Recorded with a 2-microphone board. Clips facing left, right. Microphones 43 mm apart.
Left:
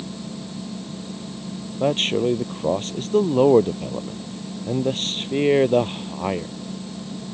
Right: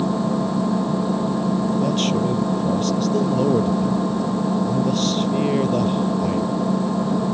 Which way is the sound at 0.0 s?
55° right (ahead or behind).